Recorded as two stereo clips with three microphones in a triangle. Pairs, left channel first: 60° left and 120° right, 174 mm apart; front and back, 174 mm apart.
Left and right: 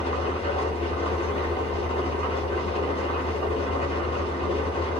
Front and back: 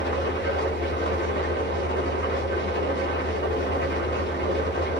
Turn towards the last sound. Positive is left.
turn(degrees=5)